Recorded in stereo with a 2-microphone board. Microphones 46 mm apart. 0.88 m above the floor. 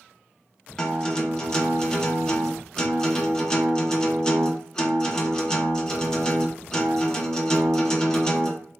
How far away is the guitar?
About 0.5 m.